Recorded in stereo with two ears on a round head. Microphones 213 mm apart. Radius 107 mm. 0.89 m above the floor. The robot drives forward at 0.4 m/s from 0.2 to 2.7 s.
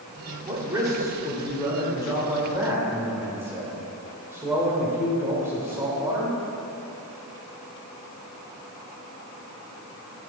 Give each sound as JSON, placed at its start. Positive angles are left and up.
{"t": 0.5, "sound": "a man speaking", "side_deg": -15, "distance_m": 1.9}